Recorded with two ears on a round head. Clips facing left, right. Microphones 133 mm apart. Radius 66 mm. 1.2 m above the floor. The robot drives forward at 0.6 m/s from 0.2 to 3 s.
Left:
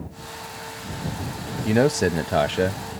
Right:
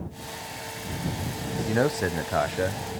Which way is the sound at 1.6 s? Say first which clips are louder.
Left 6 dB; 25° left (ahead or behind).